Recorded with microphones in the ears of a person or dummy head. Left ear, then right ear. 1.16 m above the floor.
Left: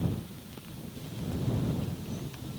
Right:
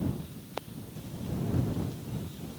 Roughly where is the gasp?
No gasp in this recording.